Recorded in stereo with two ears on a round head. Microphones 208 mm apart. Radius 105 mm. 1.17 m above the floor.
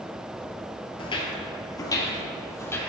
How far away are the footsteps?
About 1.4 m.